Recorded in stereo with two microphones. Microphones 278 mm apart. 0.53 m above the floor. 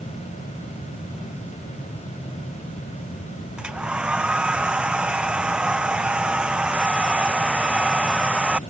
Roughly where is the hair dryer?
Centre.